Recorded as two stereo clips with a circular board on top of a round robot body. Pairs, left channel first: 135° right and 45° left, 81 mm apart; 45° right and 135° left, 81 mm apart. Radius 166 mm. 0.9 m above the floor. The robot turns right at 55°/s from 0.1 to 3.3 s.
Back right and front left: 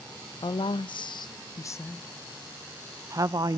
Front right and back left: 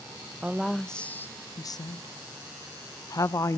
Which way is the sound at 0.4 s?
155° right.